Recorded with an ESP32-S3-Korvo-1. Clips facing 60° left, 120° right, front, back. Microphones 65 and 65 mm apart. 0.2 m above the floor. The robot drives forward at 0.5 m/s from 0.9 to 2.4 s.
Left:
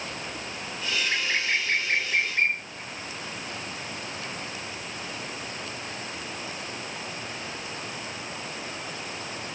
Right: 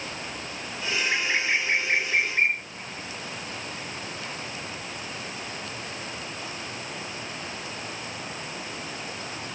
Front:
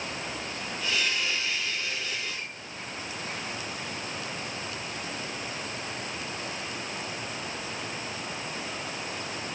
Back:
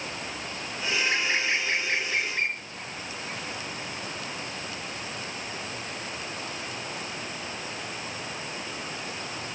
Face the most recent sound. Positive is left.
turn(degrees=165)